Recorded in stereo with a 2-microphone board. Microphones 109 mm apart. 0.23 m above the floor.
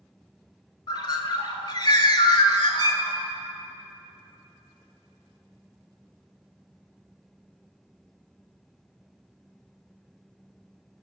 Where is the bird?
45° left (ahead or behind), 0.5 m.